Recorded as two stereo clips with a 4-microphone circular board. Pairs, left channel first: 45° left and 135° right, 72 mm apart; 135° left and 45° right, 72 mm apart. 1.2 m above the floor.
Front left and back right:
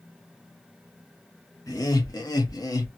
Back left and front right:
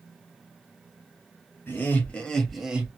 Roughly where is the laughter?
Left.